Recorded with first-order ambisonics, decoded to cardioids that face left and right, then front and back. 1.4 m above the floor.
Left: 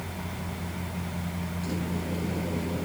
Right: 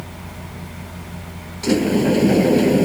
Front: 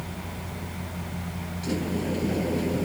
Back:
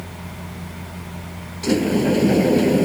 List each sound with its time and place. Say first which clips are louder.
1.6 s a sliding door: right 18 dB, back 11 dB; 125° right